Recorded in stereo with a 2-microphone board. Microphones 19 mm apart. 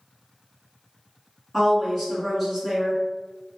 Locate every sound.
1.5 s a woman speaking: 5° left (ahead or behind), 1.8 m